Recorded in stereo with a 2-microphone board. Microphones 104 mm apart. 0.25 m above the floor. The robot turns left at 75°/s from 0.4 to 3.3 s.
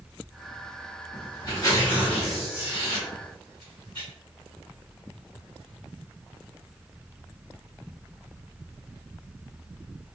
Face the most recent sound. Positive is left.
turn(degrees=-45)  # may be behind; listen again after turning